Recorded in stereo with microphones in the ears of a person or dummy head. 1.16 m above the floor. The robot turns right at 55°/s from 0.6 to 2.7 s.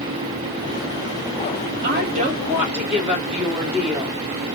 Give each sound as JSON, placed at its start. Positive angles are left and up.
{"t": 1.8, "sound": "a woman speaking", "azimuth_deg": -50, "distance_m": 1.5}